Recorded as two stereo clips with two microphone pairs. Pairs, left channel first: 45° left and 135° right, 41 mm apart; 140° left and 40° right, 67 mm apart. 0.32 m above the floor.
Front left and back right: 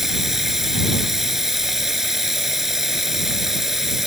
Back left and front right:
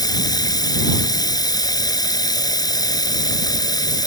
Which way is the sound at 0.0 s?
145° left.